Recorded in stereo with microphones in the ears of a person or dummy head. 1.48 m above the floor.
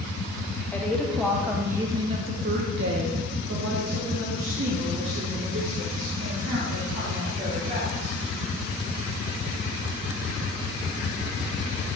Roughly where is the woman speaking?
Centre.